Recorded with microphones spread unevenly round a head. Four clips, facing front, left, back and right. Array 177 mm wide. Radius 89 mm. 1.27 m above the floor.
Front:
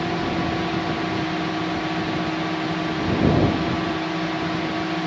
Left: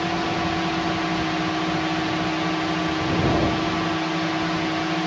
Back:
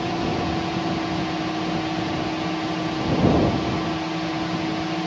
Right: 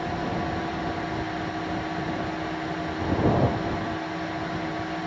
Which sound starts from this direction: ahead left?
A drone, at 0.0 s.